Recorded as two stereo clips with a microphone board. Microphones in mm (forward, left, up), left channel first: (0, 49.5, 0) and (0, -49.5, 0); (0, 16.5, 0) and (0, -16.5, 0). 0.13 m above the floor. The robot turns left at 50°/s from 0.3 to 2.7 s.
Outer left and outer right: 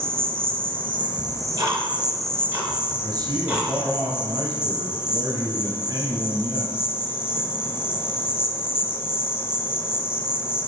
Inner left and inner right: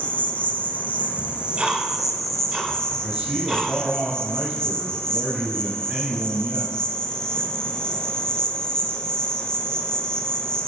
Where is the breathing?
I don't hear breathing.